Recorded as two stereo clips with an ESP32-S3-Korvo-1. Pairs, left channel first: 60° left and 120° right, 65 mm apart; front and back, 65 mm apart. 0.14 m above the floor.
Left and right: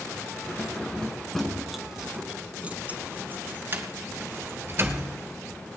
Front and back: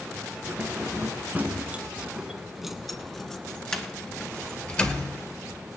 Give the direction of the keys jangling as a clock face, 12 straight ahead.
8 o'clock.